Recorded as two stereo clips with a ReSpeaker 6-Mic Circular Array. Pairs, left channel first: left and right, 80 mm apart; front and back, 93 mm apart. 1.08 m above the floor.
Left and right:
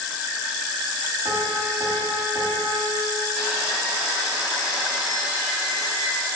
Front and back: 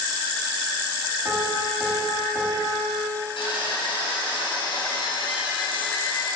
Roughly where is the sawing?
Ahead.